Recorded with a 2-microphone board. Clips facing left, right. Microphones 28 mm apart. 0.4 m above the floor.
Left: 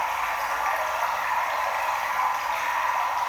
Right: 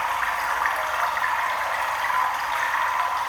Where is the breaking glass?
No breaking glass in this recording.